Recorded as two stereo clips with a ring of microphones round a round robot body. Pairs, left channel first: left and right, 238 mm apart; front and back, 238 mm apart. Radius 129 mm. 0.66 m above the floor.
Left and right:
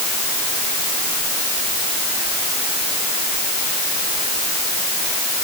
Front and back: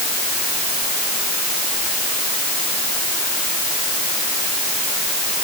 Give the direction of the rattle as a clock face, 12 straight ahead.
No rattle in this recording.